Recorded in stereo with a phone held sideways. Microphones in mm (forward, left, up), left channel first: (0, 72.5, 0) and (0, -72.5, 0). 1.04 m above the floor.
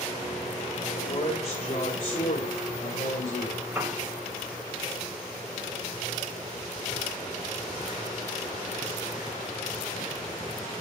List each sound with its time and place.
0.9 s a man speaking: 50° left (ahead or behind), 4.5 m; by 3.6 s 65° left (ahead or behind), 4.5 m
3.8 s a piano: 15° right (ahead or behind), 4.5 m